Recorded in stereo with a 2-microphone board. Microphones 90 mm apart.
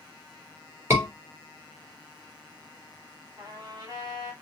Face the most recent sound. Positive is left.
turn(degrees=-40)  # may be behind; listen again after turning